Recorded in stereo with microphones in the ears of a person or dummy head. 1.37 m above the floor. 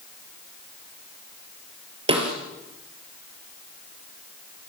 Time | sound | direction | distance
2.1 | a snare drum | 30° right (ahead or behind) | 4 m